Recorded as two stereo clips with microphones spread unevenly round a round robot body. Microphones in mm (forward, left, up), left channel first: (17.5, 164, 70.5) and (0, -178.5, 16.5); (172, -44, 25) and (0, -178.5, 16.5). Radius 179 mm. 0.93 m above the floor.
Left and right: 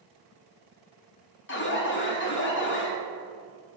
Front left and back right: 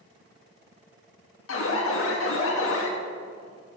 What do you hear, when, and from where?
1.5 s an alarm: 25° left, 1.5 m